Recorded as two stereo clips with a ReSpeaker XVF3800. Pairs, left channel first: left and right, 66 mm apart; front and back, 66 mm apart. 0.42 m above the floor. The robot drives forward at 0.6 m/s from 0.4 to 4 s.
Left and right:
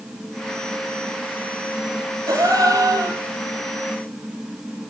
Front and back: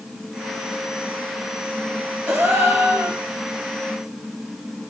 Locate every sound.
2.3 s a gasp: 125° right, 7.5 m; by 3.2 s 130° right, 8 m